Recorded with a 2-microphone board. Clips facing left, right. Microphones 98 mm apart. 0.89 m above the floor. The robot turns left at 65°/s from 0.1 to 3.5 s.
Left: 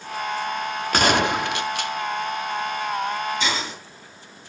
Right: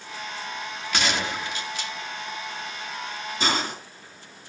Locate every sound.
0.9 s a gunshot: 125° left, 0.6 m; by 1.9 s 60° left, 0.6 m
3.4 s a hiss: 45° right (ahead or behind), 5 m; by 3.8 s 55° right (ahead or behind), 5 m